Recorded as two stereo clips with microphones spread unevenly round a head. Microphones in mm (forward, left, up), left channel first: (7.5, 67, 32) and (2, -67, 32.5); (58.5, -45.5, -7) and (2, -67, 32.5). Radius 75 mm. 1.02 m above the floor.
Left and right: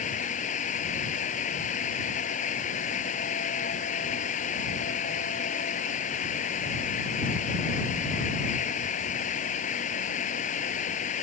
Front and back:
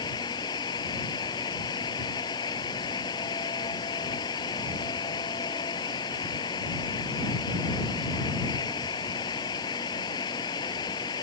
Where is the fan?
50° left.